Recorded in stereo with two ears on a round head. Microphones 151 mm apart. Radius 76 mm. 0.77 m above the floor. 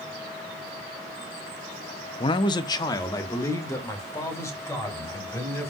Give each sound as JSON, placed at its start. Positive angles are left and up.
{"t": 2.2, "sound": "a man speaking", "side_deg": 30, "distance_m": 0.6}